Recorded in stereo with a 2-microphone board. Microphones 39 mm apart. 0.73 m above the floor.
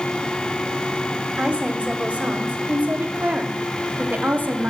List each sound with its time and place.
1.4 s a woman speaking: 35° right (ahead or behind), 2.5 m; by 4.7 s 55° right (ahead or behind), 1.7 m